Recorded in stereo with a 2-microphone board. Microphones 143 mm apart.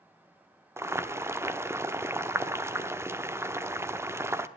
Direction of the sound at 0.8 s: 20° right (ahead or behind).